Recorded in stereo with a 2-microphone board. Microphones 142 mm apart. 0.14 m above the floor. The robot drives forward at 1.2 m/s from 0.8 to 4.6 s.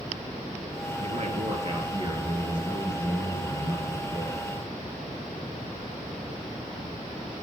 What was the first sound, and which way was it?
A man speaking, 55° right (ahead or behind).